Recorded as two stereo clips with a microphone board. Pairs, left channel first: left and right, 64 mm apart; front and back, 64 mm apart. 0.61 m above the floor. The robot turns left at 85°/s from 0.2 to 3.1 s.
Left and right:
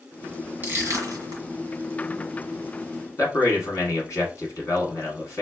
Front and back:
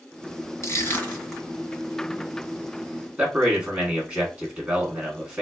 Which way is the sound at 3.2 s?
115° left.